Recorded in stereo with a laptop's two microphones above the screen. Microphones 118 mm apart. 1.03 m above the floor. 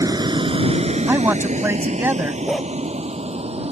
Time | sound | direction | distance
0.0 | a vehicle | 30° right (ahead or behind) | ?
1.1 | a man speaking | 20° right (ahead or behind) | ?
2.5 | a dog barking | 5° left (ahead or behind) | ?